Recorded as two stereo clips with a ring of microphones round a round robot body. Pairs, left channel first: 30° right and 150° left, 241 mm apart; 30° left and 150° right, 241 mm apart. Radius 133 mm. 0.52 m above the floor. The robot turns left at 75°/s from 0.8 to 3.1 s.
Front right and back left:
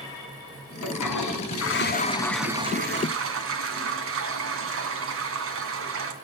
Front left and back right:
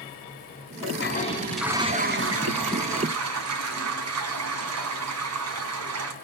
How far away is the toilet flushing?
About 3 m.